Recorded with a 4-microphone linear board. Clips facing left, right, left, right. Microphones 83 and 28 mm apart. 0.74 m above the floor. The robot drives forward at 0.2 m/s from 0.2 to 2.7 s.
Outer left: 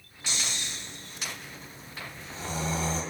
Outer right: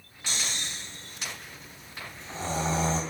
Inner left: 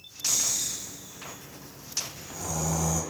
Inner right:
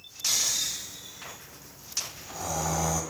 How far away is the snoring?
About 0.9 m.